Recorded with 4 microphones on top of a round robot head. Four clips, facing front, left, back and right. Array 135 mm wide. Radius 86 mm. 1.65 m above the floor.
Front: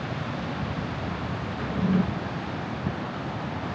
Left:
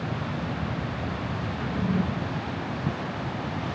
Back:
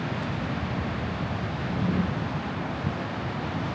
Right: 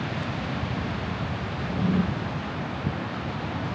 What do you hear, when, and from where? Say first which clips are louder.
1.6 s a drawer: right 2 dB, front 3 dB; 5° right, 1.2 m